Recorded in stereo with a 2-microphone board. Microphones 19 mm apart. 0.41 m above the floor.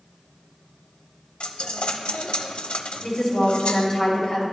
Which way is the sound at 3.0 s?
20° left (ahead or behind).